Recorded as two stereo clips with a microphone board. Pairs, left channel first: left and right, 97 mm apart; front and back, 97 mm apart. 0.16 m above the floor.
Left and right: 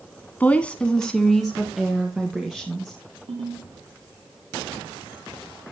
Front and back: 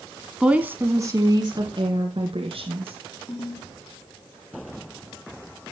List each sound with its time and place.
0.4 s a woman speaking: 115° left, 1.0 m; by 3.0 s 170° right, 2.5 m
3.3 s a ringtone: 70° right, 6 m